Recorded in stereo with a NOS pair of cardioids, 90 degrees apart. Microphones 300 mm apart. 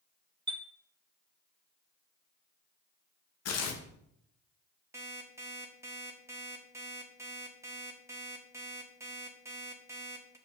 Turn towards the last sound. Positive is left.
turn(degrees=-10)